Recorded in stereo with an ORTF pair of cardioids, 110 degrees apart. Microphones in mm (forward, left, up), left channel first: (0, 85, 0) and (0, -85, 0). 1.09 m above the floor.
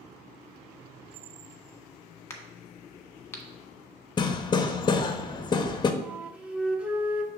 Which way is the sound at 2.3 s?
15° left.